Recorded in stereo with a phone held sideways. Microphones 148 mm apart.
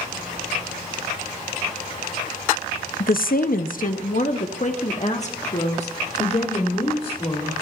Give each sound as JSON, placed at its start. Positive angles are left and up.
{"t": 3.0, "sound": "a woman speaking", "side_deg": 65, "distance_m": 0.6}